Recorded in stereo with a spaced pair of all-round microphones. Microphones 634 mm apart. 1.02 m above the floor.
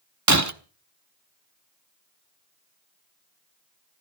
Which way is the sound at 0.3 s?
25° right (ahead or behind).